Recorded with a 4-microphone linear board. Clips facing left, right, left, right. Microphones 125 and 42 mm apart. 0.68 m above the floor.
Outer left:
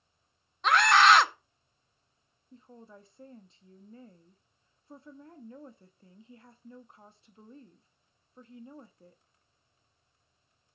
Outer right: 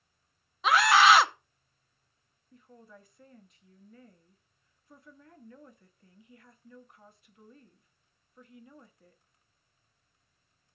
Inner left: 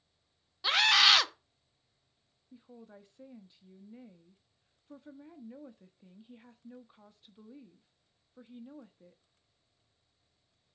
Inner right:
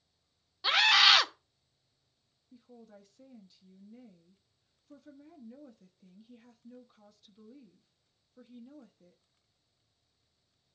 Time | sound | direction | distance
0.6 | a scream | 5° right (ahead or behind) | 0.6 m
2.5 | a woman speaking | 30° left (ahead or behind) | 1.0 m